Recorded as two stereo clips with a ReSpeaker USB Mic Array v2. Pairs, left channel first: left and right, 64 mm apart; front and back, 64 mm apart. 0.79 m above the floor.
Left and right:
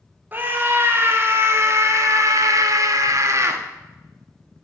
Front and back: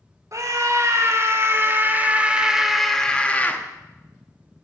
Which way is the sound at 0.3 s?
150° right.